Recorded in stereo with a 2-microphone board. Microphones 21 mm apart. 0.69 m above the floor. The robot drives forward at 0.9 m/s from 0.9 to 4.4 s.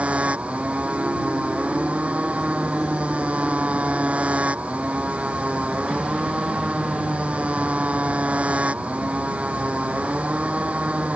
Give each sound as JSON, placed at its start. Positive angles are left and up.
{"t": 0.0, "sound": "a motorcycle", "side_deg": -80}